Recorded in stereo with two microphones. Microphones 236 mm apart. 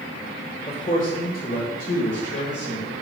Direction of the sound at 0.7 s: 25° left (ahead or behind).